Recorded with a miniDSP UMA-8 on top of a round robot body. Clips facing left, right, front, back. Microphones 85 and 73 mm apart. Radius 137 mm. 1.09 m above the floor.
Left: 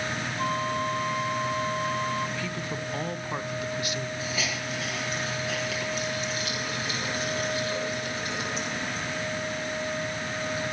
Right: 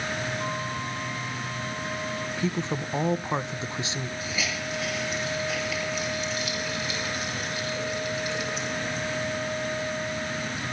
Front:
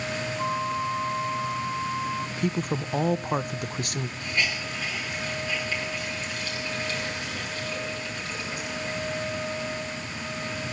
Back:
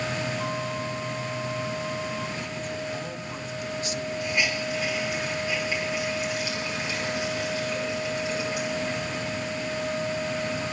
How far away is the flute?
About 1.0 m.